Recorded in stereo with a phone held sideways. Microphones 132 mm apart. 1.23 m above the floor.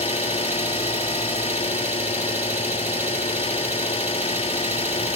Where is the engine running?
55° left (ahead or behind), 4 m.